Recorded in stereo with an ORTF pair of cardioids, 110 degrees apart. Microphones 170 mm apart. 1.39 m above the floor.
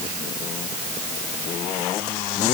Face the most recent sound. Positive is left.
No sound to turn to.